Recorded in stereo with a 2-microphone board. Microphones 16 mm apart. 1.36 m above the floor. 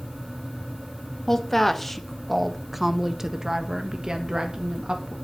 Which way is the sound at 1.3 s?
20° left (ahead or behind).